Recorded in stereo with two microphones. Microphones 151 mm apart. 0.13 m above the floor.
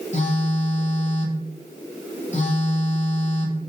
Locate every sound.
0.1 s a phone buzzing: 50° left (ahead or behind), 2.5 m